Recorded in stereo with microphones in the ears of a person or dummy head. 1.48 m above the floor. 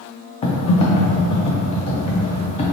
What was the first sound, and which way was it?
Typing on a keyboard, 35° left (ahead or behind).